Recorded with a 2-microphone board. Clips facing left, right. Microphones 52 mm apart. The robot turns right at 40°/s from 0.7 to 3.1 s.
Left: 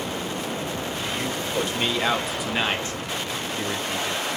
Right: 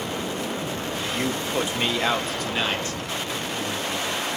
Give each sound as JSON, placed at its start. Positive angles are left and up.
{"t": 1.1, "sound": "a man speaking", "azimuth_deg": -40, "distance_m": 0.6}